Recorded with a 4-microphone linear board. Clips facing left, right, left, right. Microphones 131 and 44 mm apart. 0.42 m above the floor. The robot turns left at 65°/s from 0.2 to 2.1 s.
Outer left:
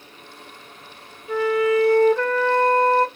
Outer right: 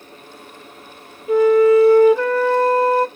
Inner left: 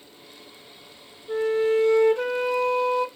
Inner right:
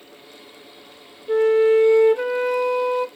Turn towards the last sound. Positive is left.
turn(degrees=-170)